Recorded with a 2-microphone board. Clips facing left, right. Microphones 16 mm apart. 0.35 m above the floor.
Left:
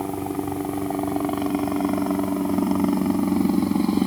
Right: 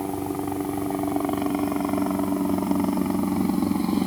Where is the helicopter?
15° left (ahead or behind); by 4.1 s 20° left (ahead or behind).